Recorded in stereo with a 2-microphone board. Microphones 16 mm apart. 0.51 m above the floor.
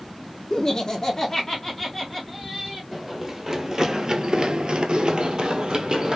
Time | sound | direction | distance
0.5 | laughter | 30° left (ahead or behind) | 0.7 m
2.9 | running footsteps | 10° right (ahead or behind) | 1.2 m